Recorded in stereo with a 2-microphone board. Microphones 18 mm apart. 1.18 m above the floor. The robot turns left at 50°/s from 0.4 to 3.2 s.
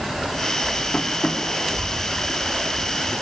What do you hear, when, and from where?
0.9 s tapping: 80° left, 3.5 m; by 1.4 s 60° left (ahead or behind), 3.5 m